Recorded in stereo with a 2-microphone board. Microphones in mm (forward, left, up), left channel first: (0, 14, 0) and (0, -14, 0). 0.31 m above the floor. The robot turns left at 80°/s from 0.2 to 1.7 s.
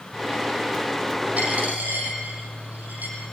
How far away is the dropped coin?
About 6 m.